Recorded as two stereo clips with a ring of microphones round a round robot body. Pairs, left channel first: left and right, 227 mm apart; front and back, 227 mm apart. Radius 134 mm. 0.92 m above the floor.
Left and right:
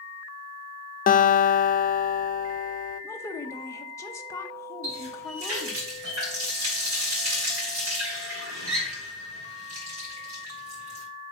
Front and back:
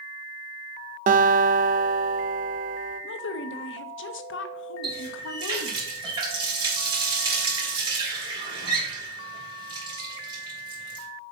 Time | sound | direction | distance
1.1 | a guitar | 135° left | 0.7 m
3.0 | a woman speaking | 15° left | 0.8 m
4.8 | a running tap | 110° right | 3.5 m